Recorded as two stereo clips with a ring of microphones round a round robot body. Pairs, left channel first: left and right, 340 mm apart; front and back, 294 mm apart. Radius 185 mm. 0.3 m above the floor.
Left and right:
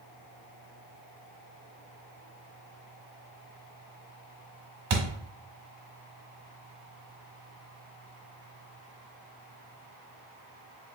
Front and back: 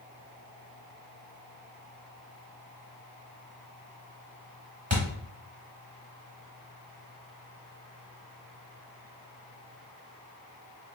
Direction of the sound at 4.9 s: 115° right.